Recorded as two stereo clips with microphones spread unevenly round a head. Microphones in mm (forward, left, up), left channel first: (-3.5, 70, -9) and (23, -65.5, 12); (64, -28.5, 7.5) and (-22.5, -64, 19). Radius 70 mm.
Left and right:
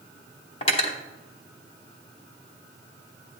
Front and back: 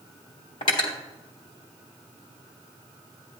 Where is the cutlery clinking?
55° left, 1.2 m.